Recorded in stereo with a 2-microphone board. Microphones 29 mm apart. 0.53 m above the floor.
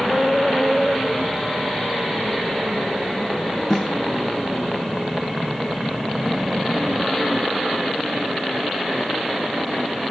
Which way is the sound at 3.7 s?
20° left (ahead or behind).